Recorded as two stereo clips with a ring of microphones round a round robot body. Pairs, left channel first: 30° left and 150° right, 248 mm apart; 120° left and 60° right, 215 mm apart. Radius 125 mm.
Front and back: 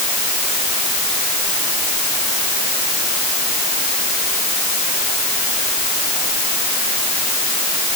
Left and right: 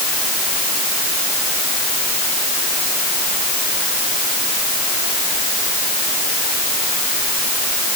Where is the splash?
No splash in this recording.